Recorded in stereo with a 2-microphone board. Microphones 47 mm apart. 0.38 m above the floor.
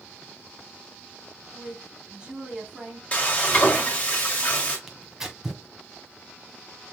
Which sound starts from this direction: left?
Frying, at 3.1 s.